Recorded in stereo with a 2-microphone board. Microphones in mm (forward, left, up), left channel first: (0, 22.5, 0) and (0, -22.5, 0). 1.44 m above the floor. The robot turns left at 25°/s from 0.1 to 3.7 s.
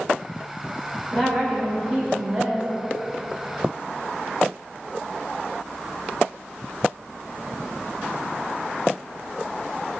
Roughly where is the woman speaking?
Ahead.